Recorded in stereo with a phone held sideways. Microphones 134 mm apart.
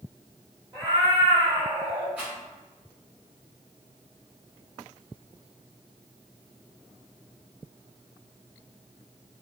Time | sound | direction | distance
0.7 | a cat meowing | 30° right (ahead or behind) | 1.7 m
2.2 | a rattle | 10° right (ahead or behind) | 1.6 m